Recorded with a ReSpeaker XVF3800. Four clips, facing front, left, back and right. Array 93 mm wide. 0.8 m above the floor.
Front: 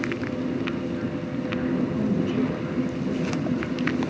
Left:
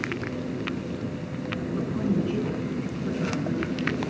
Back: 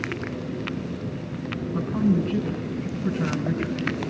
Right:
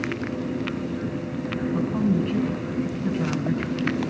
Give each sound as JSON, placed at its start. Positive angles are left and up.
{"t": 1.8, "sound": "a woman speaking", "azimuth_deg": -125, "distance_m": 7.0}